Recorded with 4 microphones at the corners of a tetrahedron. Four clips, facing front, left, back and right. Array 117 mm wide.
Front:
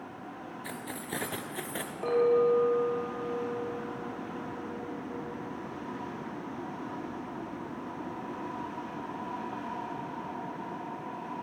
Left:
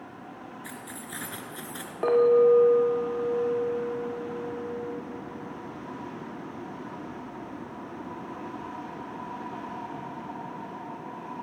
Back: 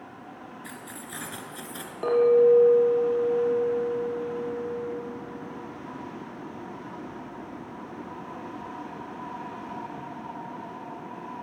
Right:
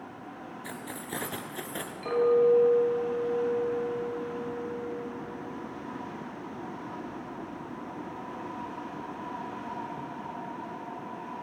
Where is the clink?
105° left, 5.5 m.